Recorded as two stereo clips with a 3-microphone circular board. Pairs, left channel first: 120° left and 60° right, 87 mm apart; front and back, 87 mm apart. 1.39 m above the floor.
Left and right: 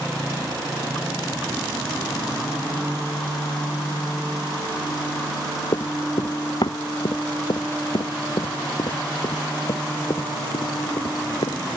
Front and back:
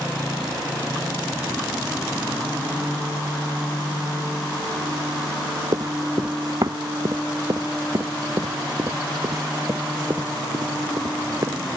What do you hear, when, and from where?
5.7 s running footsteps: 140° left; by 11.8 s 135° left